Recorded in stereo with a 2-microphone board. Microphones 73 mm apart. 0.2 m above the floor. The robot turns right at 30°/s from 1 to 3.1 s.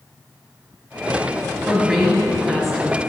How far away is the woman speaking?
About 1.4 m.